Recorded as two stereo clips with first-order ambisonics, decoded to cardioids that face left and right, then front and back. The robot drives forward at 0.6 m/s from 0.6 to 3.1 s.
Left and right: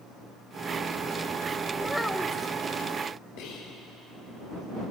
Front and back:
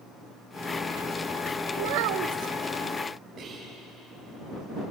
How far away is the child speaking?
About 0.6 m.